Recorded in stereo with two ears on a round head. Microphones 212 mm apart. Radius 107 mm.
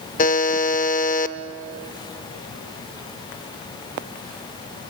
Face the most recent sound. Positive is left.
turn(degrees=35)  # may be behind; listen again after turning